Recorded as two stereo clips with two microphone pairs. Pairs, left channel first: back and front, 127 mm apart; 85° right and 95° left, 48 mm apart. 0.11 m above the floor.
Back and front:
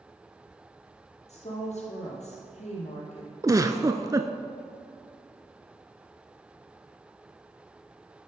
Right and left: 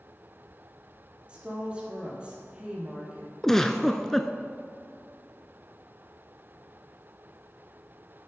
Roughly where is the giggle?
Ahead.